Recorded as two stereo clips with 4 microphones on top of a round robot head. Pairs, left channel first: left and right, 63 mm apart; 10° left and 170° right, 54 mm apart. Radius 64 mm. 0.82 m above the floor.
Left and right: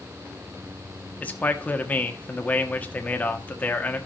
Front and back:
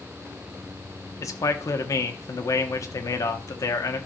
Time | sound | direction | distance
1.2 | a man speaking | 25° left | 1.2 m